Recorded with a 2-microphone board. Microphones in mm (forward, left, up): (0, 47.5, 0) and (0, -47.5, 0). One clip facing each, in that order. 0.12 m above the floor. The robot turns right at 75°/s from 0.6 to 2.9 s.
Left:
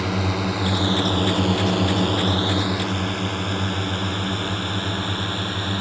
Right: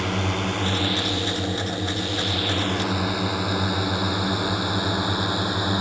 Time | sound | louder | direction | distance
0.0 | a drone | left 2 dB | centre (ahead or behind) | ?